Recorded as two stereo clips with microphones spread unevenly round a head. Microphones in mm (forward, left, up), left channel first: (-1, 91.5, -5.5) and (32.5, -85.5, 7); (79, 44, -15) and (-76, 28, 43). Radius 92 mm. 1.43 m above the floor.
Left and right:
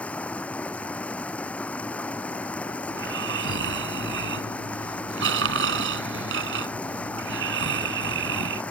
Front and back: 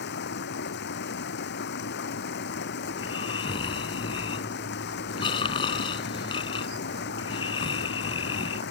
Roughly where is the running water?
Ahead.